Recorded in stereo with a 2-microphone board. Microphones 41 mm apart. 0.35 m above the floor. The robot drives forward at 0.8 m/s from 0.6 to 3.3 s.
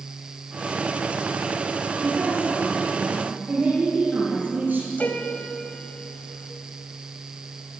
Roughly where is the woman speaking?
Right.